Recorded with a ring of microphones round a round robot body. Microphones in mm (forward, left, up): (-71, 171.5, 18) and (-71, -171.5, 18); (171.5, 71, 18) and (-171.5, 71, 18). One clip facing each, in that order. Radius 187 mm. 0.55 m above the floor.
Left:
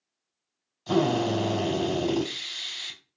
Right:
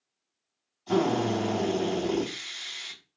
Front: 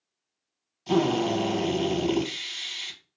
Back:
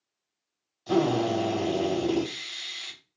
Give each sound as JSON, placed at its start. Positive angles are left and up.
{"t": 0.9, "sound": "a drill", "azimuth_deg": 70, "distance_m": 3.0}